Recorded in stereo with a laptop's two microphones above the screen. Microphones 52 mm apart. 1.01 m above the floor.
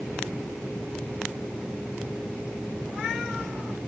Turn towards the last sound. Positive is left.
No sound to turn to.